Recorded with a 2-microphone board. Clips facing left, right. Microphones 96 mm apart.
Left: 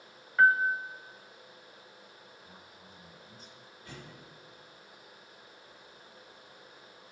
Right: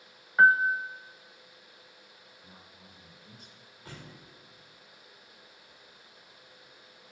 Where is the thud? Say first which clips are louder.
Right 1 dB; 35° right (ahead or behind), 6.5 m.